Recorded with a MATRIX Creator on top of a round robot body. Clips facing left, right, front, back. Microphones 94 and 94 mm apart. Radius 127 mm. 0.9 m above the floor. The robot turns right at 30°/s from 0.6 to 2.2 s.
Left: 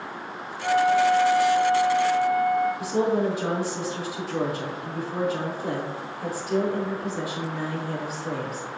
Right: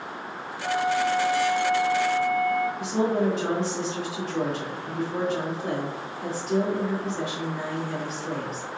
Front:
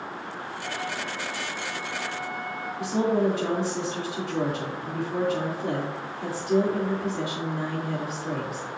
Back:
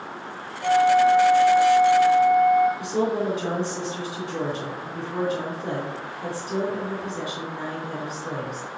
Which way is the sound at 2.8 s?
5° left.